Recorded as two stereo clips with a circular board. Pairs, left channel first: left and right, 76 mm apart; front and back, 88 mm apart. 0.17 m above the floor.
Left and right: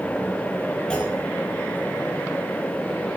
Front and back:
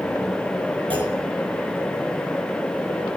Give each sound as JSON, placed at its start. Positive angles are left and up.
{"t": 0.9, "sound": "a clunk", "azimuth_deg": 165, "distance_m": 4.0}